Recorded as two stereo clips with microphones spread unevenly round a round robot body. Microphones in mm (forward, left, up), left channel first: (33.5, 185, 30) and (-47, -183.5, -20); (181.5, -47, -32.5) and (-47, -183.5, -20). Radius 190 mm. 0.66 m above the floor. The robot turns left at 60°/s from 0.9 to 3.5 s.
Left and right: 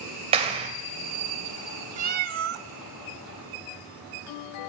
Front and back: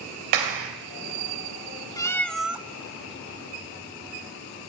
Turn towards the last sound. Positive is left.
turn(degrees=-130)